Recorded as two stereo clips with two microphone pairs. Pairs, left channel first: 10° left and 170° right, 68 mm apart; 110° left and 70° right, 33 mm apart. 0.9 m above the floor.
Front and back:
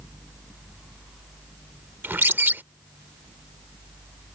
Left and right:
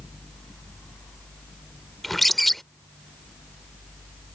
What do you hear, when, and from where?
2.0 s a bird: 175° right